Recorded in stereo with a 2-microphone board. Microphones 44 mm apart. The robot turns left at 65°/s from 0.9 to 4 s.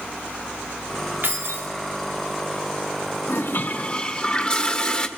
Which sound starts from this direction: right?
Keys jangling, at 1.2 s.